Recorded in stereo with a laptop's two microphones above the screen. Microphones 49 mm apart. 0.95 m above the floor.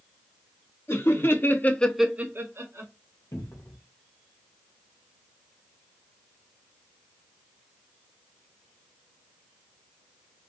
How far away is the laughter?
About 1.7 m.